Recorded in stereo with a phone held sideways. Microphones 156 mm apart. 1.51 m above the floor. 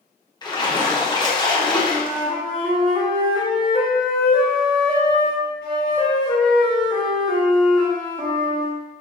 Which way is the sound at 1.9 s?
5° left (ahead or behind).